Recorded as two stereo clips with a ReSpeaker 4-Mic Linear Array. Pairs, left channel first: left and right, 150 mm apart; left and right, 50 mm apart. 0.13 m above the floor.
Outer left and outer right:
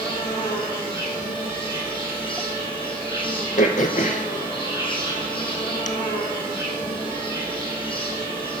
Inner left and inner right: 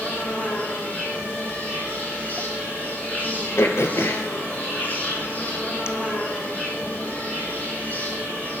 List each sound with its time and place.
0.0 s an insect: 35° left (ahead or behind), 2 m
3.6 s throat clearing: 55° left (ahead or behind), 0.8 m